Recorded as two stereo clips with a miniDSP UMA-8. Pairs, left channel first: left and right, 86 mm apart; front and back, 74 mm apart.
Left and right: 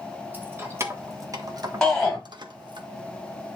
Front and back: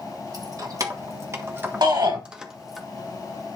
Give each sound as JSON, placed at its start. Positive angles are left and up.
{"t": 0.3, "sound": "keys jangling", "azimuth_deg": -155, "distance_m": 1.5}
{"t": 1.8, "sound": "a shout", "azimuth_deg": 175, "distance_m": 5.0}